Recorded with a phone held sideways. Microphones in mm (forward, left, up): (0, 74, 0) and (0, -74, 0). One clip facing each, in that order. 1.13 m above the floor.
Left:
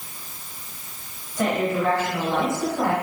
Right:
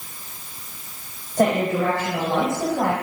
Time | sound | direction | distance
1.4 | a woman speaking | 45° right (ahead or behind) | 4.5 m